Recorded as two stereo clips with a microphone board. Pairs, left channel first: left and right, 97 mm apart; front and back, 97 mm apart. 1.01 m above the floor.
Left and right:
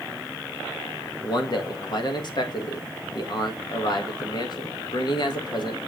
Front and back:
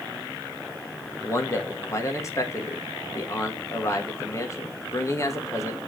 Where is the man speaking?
55° left, 1.4 m.